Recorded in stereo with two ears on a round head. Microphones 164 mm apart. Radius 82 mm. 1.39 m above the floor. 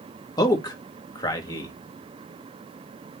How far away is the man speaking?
About 1.2 m.